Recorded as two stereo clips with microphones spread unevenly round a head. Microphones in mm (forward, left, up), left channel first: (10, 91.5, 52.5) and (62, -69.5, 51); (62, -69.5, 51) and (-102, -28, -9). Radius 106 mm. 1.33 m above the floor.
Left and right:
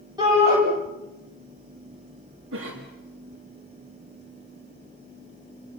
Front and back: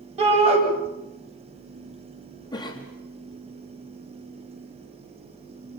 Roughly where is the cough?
Right.